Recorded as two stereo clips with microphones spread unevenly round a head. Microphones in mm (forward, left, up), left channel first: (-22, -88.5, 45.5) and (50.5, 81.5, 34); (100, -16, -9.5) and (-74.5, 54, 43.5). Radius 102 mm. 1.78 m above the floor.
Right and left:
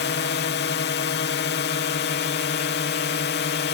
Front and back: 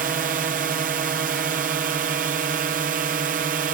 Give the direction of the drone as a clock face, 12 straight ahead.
5 o'clock.